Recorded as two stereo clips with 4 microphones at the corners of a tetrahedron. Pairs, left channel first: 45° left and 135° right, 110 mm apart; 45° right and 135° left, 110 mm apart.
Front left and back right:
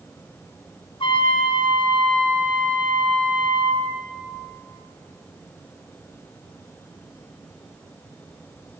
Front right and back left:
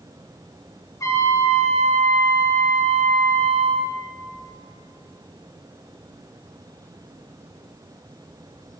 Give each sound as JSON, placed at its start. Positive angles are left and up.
{"t": 1.0, "sound": "a trumpet", "azimuth_deg": 15, "distance_m": 3.0}